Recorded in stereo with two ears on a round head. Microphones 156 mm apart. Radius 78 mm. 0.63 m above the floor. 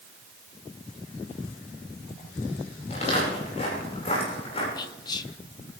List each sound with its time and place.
2.9 s footsteps: 40° left (ahead or behind), 10 m; by 4.7 s 35° left (ahead or behind), 10 m
4.8 s whispering: 25° left (ahead or behind), 0.5 m